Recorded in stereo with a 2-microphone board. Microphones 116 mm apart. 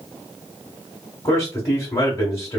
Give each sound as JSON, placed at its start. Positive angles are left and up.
{"t": 1.2, "sound": "a man speaking", "side_deg": 25, "distance_m": 1.1}